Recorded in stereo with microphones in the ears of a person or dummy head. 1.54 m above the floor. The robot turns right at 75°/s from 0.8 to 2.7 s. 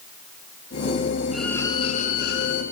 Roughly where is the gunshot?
No gunshot in this recording.